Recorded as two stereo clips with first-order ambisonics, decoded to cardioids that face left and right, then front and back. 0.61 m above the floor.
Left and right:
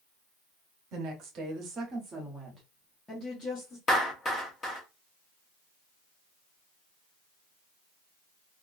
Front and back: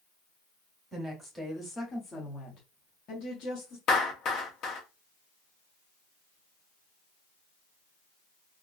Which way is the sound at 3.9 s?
30° left.